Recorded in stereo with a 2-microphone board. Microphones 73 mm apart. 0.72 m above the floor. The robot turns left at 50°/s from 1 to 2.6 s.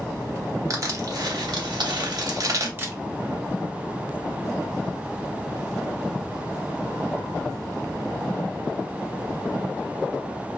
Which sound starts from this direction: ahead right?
Crushing, at 0.7 s.